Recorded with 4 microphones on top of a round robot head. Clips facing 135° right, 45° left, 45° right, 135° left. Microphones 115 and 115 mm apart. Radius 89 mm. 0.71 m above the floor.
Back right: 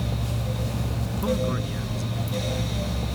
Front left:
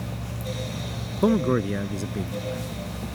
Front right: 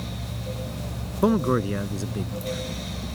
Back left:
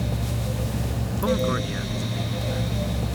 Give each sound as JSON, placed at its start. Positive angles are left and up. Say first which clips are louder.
{"t": 1.2, "sound": "a man speaking", "louder": "front left 6 dB, front right 3 dB", "azimuth_deg": 10}